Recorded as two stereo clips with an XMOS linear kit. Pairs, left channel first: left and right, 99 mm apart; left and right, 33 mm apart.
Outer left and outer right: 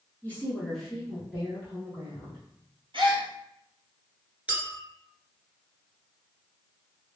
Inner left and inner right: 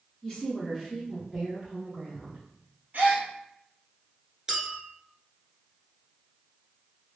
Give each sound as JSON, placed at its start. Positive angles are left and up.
{"t": 0.2, "sound": "a woman speaking", "side_deg": 20, "distance_m": 1.2}
{"t": 2.9, "sound": "a gasp", "side_deg": -55, "distance_m": 1.1}
{"t": 4.5, "sound": "a clink", "side_deg": -15, "distance_m": 1.1}